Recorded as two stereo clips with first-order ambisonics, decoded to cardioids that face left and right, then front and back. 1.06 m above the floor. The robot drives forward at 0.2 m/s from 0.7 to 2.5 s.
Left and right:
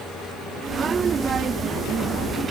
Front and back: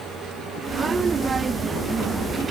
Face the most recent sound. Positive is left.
No sound to turn to.